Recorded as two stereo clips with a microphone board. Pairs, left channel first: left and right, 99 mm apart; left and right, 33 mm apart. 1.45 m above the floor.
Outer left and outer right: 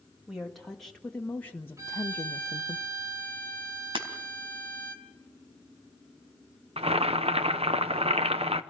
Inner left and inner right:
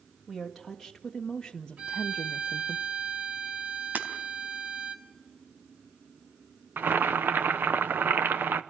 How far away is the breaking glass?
About 3 m.